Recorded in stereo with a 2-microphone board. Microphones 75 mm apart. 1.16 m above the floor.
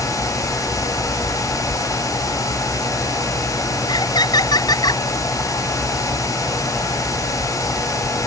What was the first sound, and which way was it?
Laughter, 70° left (ahead or behind).